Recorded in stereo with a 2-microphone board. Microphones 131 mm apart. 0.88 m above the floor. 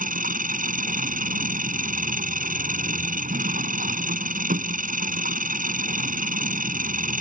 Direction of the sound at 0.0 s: 85° right.